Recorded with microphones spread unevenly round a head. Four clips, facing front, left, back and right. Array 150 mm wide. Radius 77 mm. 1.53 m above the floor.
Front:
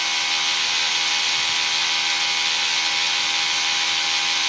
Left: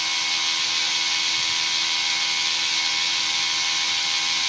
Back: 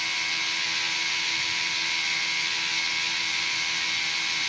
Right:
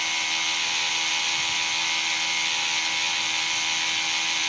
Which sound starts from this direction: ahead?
A machine running, at 0.0 s.